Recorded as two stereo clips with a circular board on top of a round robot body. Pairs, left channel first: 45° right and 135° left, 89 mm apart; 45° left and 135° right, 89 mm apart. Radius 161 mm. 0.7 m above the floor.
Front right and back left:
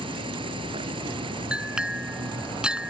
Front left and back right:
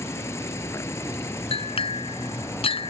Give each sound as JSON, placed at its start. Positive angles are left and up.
{"t": 0.0, "sound": "an insect", "azimuth_deg": 105}
{"t": 1.5, "sound": "a clink", "azimuth_deg": 55}